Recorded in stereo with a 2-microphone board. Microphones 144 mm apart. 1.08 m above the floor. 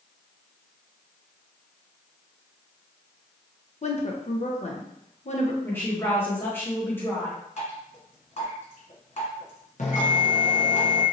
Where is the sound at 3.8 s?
50° left (ahead or behind), 0.6 m.